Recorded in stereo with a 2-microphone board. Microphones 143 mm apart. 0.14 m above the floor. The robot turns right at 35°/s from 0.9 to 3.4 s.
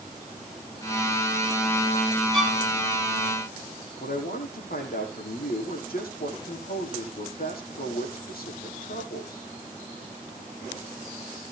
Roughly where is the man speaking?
Left.